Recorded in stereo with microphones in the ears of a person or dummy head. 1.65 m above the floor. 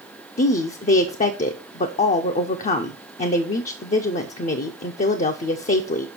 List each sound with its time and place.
0.4 s a woman speaking: 45° left (ahead or behind), 0.6 m